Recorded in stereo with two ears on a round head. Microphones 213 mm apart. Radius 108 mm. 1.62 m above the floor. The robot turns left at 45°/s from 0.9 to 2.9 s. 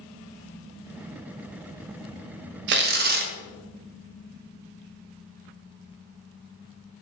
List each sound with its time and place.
2.7 s tearing paper: 50° right (ahead or behind), 0.5 m; by 3.3 s 40° right (ahead or behind), 0.5 m